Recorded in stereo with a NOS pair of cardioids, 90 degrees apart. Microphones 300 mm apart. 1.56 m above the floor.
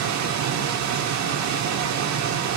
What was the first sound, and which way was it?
A machine running, 70° right.